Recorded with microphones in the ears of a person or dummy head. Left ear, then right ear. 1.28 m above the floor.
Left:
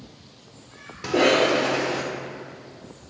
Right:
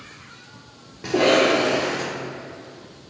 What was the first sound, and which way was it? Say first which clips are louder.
A cough: right 2 dB; 25° left (ahead or behind).